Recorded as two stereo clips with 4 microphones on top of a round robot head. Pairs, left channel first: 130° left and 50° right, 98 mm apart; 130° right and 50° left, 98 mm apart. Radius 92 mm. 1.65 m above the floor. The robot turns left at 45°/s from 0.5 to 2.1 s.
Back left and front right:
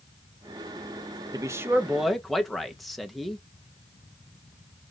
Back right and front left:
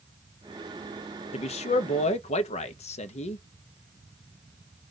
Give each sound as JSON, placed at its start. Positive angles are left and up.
{"t": 1.3, "sound": "a man speaking", "azimuth_deg": -105, "distance_m": 0.9}